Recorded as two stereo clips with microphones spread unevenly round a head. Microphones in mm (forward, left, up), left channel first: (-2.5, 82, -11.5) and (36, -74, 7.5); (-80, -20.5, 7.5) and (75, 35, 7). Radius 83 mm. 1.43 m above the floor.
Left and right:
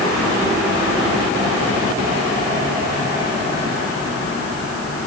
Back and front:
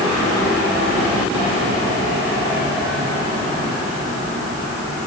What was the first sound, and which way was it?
Only background noise.